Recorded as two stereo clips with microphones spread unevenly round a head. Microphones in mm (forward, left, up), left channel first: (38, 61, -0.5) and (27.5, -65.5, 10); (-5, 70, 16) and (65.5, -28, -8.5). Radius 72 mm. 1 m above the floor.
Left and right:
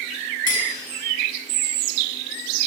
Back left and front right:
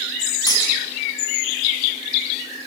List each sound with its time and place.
0.5 s cutlery clinking: 70° left, 6 m